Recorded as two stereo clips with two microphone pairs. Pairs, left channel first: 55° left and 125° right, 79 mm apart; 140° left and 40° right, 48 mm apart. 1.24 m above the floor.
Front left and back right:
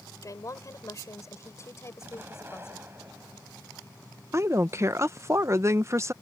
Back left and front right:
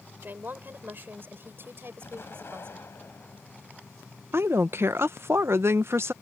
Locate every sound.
0.2 s a woman speaking: 10° left; by 2.9 s straight ahead
2.0 s an explosion: 175° left
4.3 s a woman speaking: 70° right